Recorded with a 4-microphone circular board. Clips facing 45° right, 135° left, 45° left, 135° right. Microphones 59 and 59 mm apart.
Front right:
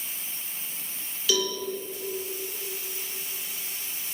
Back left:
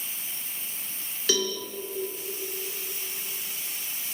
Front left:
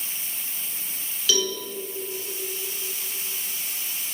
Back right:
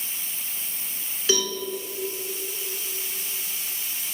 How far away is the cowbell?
About 1.7 m.